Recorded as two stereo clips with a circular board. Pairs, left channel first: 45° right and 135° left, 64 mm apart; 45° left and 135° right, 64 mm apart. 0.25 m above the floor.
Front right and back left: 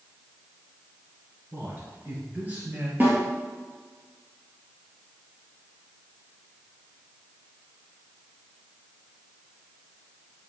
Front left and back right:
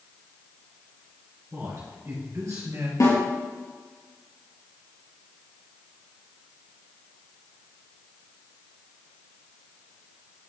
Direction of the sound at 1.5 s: 175° right.